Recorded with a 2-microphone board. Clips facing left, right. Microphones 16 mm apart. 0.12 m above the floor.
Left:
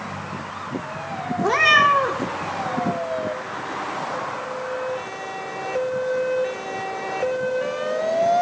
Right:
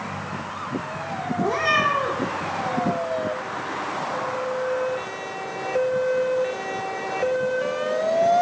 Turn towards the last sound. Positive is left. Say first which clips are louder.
# left 6 dB
turn(degrees=35)  # may be behind; listen again after turning